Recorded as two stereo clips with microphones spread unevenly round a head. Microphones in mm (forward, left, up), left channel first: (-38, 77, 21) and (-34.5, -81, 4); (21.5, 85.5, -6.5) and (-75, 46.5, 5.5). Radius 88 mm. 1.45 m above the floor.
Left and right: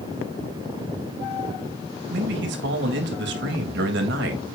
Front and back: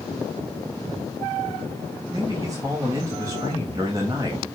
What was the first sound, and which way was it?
A man speaking, 85° right.